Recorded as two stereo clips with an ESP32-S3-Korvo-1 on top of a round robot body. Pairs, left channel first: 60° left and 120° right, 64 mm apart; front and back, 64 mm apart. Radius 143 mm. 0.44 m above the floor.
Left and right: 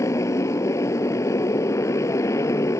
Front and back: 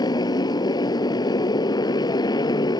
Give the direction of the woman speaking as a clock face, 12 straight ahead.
No woman speaking in this recording.